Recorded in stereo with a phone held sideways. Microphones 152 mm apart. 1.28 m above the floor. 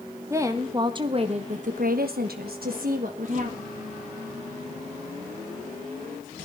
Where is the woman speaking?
20° right (ahead or behind), 2 m; by 3.7 s 50° right (ahead or behind), 2 m.